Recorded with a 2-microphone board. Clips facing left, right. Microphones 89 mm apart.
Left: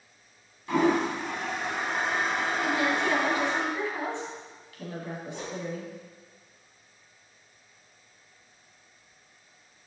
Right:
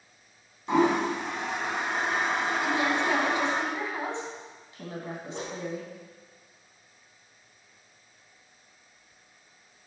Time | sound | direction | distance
0.7 | a toilet flushing | 25° right (ahead or behind) | 2 m
2.6 | a woman speaking | 20° right (ahead or behind) | 2.5 m
5.3 | a whoosh | 70° right (ahead or behind) | 3.5 m